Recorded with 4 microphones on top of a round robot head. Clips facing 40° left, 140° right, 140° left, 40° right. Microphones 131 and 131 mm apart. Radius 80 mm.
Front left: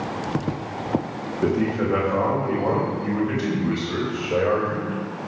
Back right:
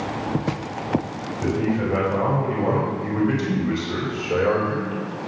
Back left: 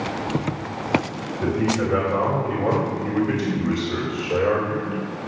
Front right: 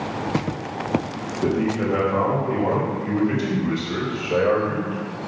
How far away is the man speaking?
About 3.5 m.